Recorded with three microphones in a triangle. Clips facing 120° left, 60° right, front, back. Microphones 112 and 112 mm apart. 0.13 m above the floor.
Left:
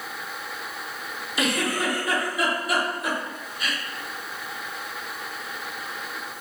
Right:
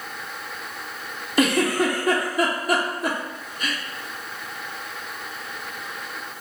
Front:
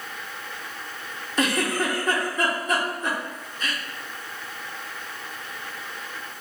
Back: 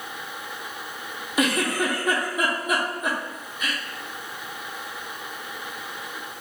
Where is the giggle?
100° right, 0.8 m.